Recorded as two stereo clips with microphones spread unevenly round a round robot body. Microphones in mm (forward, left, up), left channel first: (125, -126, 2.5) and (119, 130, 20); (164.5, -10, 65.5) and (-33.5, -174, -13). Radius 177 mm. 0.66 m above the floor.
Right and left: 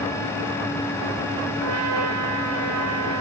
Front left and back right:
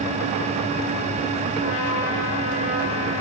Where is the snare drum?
I don't hear a snare drum.